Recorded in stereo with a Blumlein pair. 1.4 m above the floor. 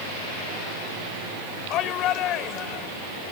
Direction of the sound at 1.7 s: 35° left.